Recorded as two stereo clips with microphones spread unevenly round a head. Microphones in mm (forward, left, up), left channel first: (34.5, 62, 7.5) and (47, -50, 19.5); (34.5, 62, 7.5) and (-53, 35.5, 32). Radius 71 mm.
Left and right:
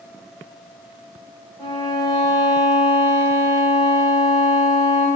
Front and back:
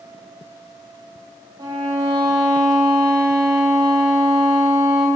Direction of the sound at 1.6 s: 155° left.